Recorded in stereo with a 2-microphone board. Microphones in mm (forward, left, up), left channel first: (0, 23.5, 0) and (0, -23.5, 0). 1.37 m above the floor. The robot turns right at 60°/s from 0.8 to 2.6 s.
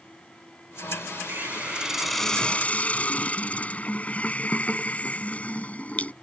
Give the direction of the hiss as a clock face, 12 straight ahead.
2 o'clock.